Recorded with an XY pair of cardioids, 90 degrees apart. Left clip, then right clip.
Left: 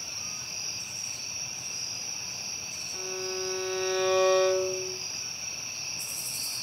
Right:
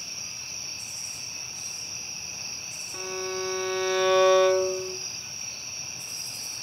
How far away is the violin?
About 2.0 m.